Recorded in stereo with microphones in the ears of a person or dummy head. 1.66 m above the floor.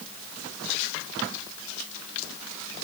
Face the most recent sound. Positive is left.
No sound to turn to.